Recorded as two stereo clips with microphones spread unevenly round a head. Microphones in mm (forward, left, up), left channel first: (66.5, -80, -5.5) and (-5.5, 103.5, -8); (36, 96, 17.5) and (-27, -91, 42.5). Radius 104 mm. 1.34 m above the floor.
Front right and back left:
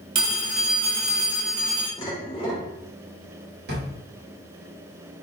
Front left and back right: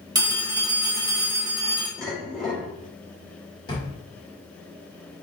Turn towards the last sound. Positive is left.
turn(degrees=145)